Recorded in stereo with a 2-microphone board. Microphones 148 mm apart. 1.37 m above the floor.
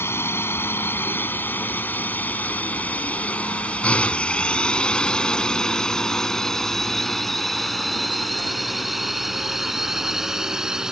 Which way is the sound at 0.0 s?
15° left (ahead or behind).